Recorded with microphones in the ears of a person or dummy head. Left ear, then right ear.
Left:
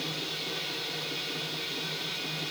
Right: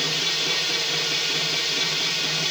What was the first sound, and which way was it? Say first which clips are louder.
A machine running: right 11 dB; 70° right (ahead or behind).